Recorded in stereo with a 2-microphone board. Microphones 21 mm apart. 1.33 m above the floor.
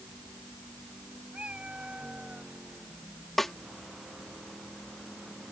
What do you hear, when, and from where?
1.3 s a cat meowing: 75° right (ahead or behind)
3.4 s a snare drum: 15° left (ahead or behind)